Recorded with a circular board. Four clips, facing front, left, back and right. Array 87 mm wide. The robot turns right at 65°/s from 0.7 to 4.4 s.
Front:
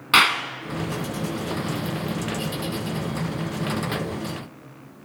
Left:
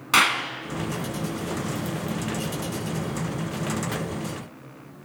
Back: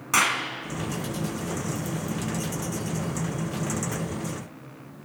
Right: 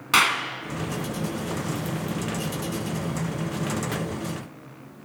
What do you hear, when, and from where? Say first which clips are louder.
0.1 s a clap: even, front 5 dB; 5° left, 0.9 m